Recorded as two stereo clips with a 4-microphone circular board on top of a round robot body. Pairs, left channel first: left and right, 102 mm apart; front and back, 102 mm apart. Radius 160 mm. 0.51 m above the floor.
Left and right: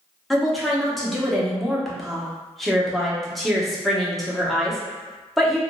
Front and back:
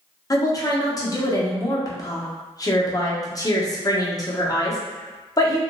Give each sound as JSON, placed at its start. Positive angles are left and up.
{"t": 0.3, "sound": "a woman speaking", "azimuth_deg": 0, "distance_m": 1.0}